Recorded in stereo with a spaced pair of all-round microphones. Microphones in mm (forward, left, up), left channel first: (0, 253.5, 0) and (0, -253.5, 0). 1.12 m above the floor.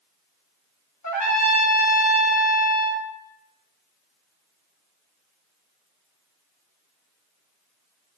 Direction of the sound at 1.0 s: 35° left (ahead or behind).